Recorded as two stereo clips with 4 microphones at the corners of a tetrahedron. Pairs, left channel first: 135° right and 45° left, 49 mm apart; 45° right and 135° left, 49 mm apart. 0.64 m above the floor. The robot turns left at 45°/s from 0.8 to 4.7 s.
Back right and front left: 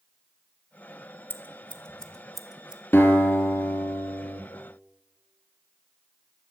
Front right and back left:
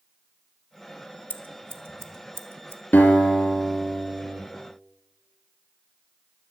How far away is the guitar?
About 2 m.